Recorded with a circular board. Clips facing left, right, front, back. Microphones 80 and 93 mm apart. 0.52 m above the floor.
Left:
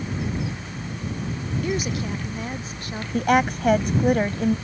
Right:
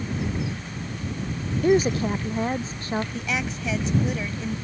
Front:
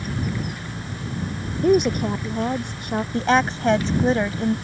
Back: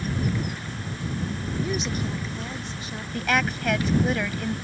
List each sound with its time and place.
1.6 s a woman speaking: 35° right; by 3.0 s 30° right
3.1 s a woman speaking: 55° left